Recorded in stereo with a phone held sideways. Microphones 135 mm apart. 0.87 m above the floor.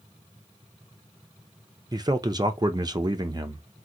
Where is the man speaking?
30° right (ahead or behind), 0.5 m.